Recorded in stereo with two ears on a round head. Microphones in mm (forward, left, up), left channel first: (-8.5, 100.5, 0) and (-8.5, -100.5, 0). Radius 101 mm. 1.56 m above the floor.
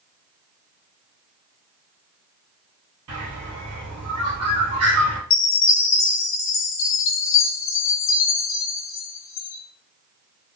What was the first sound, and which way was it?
A bird, 75° right (ahead or behind).